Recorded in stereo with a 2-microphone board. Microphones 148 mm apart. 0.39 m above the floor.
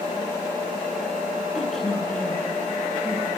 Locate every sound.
1.6 s a woman speaking: centre (ahead or behind), 5 m; by 3.3 s 20° left (ahead or behind), 5 m